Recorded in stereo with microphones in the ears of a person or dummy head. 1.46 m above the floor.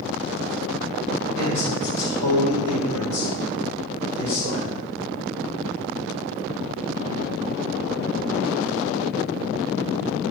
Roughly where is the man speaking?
Left.